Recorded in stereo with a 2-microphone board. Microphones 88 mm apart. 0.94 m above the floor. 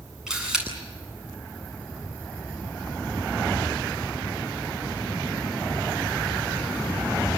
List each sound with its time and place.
0.3 s a camera shutter: 5° right (ahead or behind), 10 m